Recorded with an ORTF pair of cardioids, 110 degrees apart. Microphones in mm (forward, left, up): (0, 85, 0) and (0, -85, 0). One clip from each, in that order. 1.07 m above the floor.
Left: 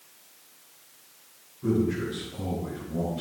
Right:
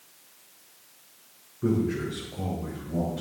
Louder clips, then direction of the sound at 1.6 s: Even; 55° right.